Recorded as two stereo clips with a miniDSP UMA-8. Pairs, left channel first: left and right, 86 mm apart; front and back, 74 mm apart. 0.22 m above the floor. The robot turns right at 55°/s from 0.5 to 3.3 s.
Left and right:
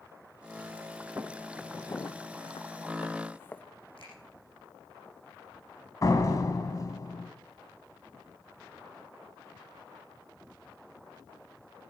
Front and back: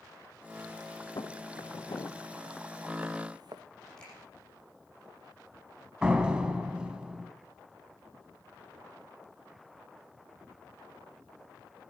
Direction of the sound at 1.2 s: 30° right.